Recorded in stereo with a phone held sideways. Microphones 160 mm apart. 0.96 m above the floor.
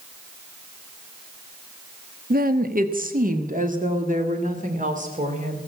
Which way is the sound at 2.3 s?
65° right (ahead or behind).